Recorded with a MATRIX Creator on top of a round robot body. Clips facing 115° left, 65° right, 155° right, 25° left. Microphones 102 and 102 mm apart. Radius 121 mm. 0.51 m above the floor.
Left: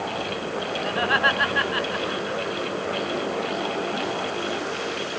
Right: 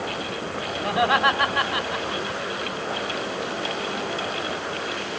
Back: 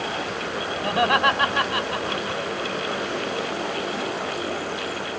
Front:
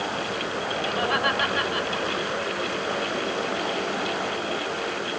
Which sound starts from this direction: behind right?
Laughter, at 0.8 s.